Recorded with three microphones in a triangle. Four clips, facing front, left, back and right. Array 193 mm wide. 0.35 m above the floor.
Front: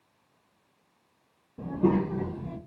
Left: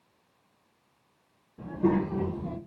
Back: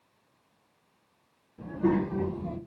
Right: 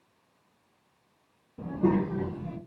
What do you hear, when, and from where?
1.6 s a child speaking: 30° right, 0.7 m; by 2.6 s 130° left, 0.7 m